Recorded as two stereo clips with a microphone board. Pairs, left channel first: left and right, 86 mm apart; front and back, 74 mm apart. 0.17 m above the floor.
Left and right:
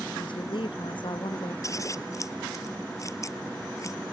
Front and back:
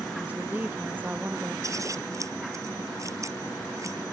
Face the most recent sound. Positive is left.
turn(degrees=140)